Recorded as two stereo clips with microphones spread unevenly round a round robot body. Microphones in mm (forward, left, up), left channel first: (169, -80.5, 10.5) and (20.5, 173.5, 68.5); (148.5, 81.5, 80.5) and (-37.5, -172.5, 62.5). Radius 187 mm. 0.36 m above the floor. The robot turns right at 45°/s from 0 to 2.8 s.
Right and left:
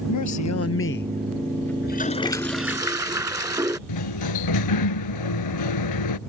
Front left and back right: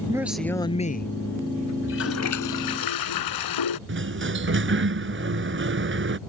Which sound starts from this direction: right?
A sliding door, at 3.9 s.